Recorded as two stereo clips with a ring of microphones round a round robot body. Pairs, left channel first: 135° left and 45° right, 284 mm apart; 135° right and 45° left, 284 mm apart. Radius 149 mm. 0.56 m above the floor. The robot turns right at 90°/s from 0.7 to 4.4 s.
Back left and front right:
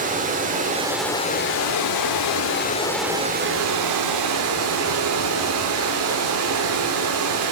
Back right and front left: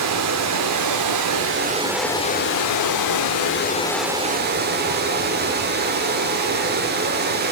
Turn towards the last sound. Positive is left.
turn(degrees=-10)